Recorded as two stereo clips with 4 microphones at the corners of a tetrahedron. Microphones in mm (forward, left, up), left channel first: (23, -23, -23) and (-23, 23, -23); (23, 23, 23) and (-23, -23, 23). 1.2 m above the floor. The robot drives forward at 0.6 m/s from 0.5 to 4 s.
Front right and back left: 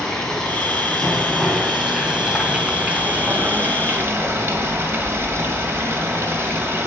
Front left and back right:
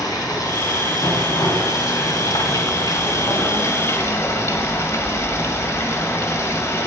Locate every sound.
0.0 s running water: 40° left, 3 m; by 6.9 s 90° left, 2.0 m